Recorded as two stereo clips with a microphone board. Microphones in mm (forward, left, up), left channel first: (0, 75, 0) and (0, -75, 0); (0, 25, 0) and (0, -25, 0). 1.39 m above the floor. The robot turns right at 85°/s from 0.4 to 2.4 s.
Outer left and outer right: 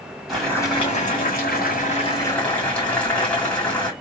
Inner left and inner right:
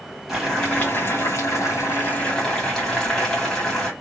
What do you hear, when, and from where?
0.3 s boiling: straight ahead, 2.5 m; by 3.9 s 170° left, 2.5 m